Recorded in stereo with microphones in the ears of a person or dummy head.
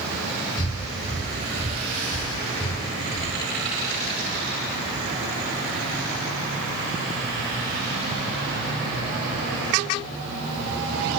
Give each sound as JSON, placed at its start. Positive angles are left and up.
{"t": 0.6, "sound": "breathing", "side_deg": 20, "distance_m": 4.0}